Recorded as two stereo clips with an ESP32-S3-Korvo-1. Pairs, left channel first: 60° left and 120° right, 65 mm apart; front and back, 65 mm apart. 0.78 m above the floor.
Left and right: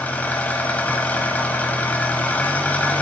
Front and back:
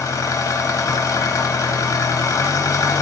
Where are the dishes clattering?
I don't hear dishes clattering.